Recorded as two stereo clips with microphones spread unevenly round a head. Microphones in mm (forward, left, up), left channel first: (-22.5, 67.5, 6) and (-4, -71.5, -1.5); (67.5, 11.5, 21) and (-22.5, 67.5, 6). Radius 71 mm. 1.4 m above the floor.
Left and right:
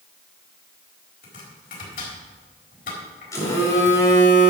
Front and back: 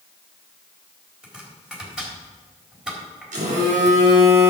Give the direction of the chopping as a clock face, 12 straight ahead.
10 o'clock.